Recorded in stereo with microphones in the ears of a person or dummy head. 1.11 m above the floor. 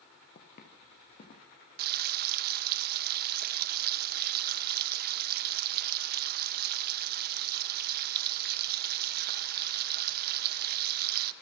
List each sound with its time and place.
0.3 s footsteps: 60° left (ahead or behind), 5.5 m; by 1.5 s 55° left (ahead or behind), 6.5 m
1.8 s frying: 45° right (ahead or behind), 0.9 m